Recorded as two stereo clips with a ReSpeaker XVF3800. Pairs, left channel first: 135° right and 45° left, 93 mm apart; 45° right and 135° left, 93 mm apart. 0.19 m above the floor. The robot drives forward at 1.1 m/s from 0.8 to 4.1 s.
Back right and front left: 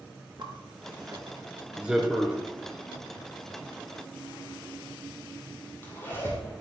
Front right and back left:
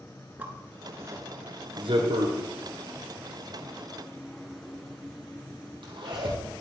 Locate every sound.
0.4 s a zipper: 65° left, 1.3 m; by 6.4 s 160° left, 3.5 m